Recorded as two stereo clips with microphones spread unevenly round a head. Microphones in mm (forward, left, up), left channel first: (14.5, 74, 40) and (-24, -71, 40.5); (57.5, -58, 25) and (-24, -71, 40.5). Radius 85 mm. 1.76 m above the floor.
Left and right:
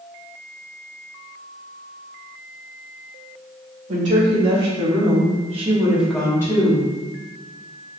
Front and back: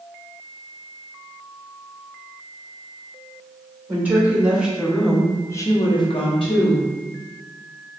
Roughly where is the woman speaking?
Right.